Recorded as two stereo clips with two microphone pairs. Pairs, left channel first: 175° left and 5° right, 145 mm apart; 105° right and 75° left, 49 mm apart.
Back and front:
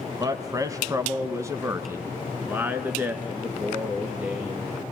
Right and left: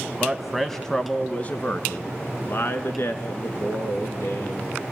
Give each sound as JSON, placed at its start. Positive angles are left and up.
{"t": 0.2, "sound": "a man speaking", "azimuth_deg": 15, "distance_m": 1.0}